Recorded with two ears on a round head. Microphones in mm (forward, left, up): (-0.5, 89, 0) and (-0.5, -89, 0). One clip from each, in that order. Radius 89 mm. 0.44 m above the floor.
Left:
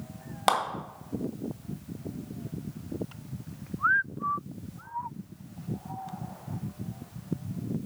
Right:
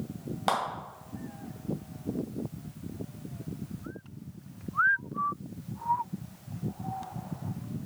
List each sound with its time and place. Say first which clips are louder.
0.5 s a clap: left 4 dB; 25° left (ahead or behind), 2 m